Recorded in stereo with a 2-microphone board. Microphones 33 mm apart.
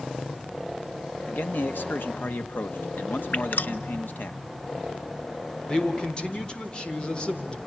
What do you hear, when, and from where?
1.3 s a man speaking: 75° left (ahead or behind), 1.6 m
3.3 s dripping: 55° left (ahead or behind), 0.9 m
5.7 s a man speaking: 30° left (ahead or behind), 3.5 m